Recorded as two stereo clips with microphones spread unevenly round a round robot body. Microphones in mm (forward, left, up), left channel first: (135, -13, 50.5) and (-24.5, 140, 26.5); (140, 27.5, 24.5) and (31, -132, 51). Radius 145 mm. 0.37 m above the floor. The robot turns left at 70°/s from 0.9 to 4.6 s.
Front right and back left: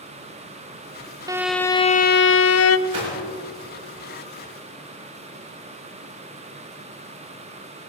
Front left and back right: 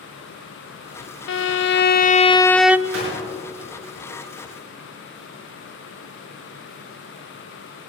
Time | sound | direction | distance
1.3 | a violin | 65° left | 0.6 m
2.9 | a gunshot | 145° right | 7 m